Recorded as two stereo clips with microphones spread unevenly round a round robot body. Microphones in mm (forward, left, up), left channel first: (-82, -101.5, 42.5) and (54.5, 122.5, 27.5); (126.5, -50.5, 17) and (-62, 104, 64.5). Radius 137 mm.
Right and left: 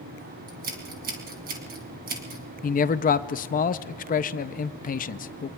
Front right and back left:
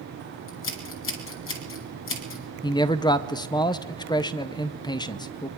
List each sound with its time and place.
0.5 s scissors: straight ahead, 2.5 m
2.6 s a man speaking: 80° right, 0.6 m